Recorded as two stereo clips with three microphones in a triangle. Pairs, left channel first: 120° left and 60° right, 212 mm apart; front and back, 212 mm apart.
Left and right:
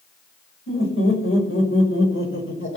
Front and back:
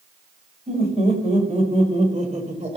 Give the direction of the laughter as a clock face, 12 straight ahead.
8 o'clock.